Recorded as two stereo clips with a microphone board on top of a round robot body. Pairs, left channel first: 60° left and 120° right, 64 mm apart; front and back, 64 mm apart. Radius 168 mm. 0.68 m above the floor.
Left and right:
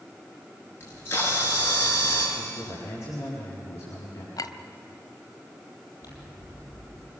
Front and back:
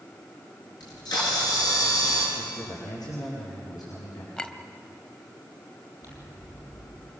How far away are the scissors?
About 7 m.